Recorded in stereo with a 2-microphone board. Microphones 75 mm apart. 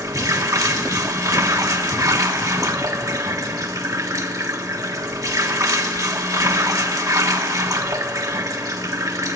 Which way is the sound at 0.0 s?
50° right (ahead or behind).